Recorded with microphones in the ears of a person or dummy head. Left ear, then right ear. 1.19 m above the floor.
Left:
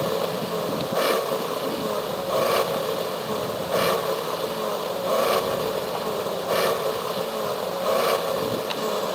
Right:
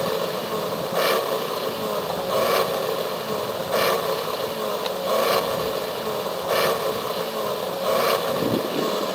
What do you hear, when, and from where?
0.0 s an engine running: 5° right (ahead or behind)